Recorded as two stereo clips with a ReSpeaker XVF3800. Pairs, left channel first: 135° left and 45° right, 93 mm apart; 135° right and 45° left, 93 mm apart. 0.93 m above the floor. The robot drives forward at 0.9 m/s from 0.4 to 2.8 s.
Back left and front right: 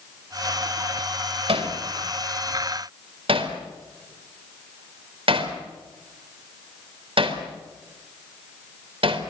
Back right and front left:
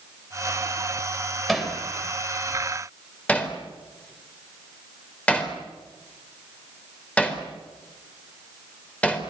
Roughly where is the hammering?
Ahead right.